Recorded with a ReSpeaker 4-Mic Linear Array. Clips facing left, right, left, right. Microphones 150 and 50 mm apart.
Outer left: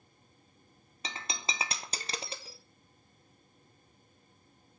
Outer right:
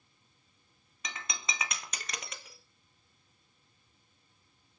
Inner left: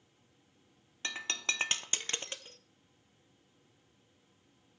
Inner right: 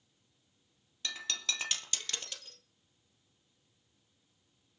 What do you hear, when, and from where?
1.0 s breaking glass: 30° left (ahead or behind), 1.9 m